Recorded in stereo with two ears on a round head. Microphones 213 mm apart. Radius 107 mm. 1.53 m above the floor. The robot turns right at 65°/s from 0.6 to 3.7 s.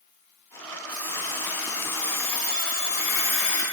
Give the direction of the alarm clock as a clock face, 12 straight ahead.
2 o'clock.